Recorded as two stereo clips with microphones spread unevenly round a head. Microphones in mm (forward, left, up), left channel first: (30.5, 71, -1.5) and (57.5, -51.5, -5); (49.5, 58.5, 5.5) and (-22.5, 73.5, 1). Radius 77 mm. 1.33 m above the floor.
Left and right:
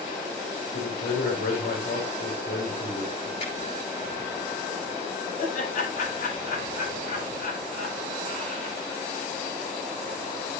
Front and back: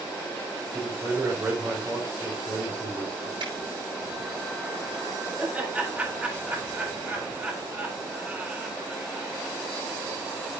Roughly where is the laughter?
Left.